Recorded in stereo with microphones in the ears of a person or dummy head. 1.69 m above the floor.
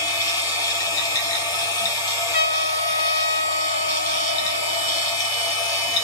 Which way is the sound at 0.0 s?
20° left (ahead or behind).